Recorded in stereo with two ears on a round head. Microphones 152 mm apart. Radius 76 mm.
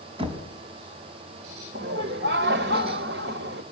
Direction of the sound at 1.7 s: 65° right (ahead or behind).